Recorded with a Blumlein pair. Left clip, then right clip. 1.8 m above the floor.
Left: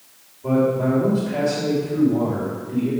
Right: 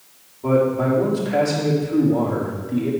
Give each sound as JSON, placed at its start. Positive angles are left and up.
{"t": 0.4, "sound": "a man speaking", "azimuth_deg": -50, "distance_m": 3.0}